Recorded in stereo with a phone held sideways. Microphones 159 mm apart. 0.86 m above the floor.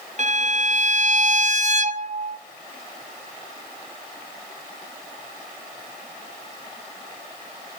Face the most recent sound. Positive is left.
turn(degrees=-45)  # may be behind; listen again after turning